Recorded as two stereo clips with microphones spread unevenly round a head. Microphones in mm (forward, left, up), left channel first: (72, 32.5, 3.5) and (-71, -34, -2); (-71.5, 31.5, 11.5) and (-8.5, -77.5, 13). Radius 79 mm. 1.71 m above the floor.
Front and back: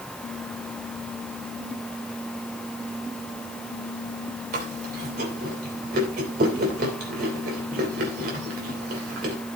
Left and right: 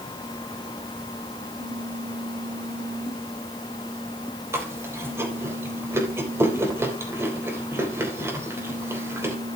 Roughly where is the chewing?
Behind right.